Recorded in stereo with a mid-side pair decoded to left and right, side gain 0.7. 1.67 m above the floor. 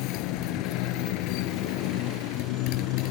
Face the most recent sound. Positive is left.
turn(degrees=65)